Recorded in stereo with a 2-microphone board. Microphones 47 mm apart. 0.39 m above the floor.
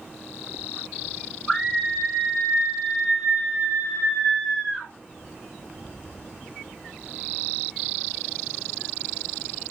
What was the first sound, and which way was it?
A scream, centre (ahead or behind).